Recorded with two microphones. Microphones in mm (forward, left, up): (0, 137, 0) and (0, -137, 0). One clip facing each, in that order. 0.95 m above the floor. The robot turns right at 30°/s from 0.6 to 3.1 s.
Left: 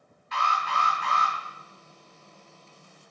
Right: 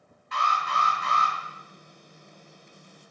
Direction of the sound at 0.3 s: 55° right (ahead or behind).